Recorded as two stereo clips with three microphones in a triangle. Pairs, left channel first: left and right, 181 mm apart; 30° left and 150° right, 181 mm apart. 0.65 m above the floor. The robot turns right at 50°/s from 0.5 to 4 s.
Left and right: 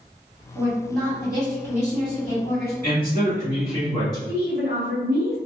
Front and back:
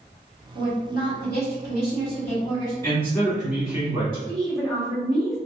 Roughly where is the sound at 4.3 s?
Right.